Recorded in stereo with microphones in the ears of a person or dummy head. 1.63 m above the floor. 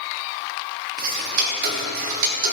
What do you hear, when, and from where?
1.0 s ticking: 50° right (ahead or behind), 1.1 m